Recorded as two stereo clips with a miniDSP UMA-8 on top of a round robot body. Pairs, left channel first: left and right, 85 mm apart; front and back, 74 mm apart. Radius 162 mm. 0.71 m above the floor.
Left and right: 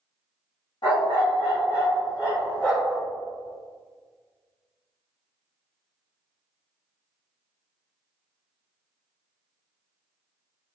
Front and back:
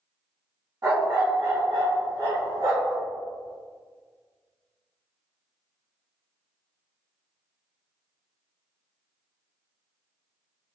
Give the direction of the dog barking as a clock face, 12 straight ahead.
8 o'clock.